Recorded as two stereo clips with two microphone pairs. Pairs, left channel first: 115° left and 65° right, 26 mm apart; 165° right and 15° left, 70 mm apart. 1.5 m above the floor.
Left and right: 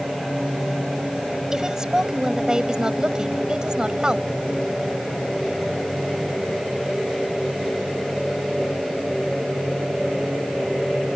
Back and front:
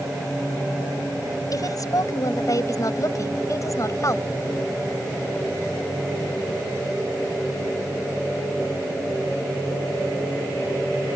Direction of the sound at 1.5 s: 135° right.